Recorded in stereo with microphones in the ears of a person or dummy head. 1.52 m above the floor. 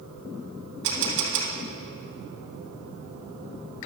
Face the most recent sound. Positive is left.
turn(degrees=-60)  # may be behind; listen again after turning